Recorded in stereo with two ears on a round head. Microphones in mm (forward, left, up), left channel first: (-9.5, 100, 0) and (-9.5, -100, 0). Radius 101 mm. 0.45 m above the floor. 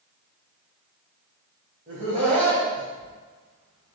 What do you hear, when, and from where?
1.9 s laughter: 35° right (ahead or behind), 2.5 m